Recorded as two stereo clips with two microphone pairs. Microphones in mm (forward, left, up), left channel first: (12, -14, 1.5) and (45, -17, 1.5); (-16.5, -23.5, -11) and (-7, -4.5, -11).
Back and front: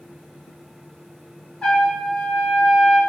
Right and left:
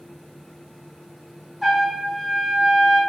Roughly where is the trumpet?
Behind left.